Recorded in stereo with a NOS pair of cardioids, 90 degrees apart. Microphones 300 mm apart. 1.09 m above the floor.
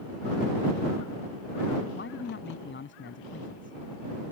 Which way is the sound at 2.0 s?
40° left.